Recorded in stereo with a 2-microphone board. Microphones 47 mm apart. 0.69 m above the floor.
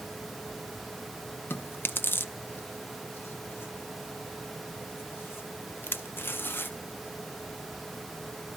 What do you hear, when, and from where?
1.5 s chewing: 45° left (ahead or behind), 0.5 m